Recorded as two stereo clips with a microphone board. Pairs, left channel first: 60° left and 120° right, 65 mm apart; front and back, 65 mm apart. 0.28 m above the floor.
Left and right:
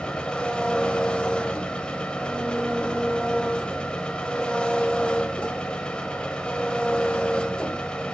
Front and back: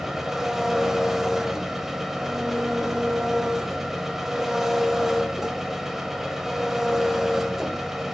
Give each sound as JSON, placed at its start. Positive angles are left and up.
{"t": 0.0, "sound": "an engine running", "azimuth_deg": 105, "distance_m": 1.1}